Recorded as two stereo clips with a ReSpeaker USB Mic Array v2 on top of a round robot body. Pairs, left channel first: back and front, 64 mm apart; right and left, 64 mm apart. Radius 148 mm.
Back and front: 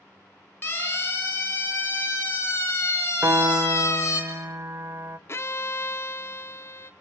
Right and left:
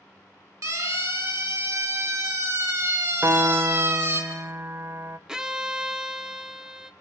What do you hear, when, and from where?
0.6 s a siren: 120° left, 7.5 m; by 4.2 s 135° left, 4.5 m
3.2 s a piano: 40° left, 0.7 m
5.3 s a violin: 165° left, 1.2 m